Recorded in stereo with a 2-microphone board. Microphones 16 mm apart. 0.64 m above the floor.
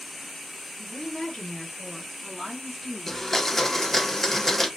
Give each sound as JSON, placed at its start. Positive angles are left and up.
{"t": 0.8, "sound": "a woman speaking", "side_deg": 50, "distance_m": 1.4}
{"t": 3.1, "sound": "a blender", "side_deg": 15, "distance_m": 0.7}